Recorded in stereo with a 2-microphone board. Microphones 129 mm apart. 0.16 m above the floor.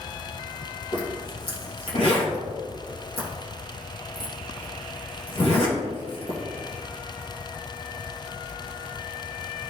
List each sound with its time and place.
0.9 s a zipper: 50° left (ahead or behind), 2.5 m